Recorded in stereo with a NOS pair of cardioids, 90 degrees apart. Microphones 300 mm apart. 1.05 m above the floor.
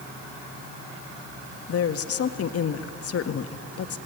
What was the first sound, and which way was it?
A woman speaking, 55° left.